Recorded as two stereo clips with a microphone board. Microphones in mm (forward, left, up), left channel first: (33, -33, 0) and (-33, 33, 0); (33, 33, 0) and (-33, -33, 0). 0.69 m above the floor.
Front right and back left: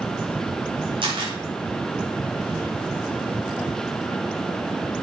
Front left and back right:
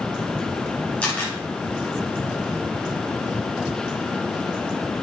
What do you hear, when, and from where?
1.0 s a camera shutter: 120° left, 5 m